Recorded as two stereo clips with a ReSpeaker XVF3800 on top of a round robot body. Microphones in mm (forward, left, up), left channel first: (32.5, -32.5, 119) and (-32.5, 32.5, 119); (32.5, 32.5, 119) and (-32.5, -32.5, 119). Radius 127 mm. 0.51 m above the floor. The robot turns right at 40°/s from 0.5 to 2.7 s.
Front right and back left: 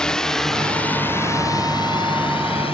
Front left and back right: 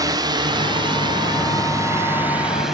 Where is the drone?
125° right; by 2.7 s 50° right.